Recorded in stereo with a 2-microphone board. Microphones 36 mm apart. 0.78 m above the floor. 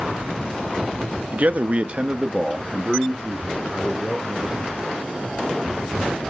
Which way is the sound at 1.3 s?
45° right (ahead or behind).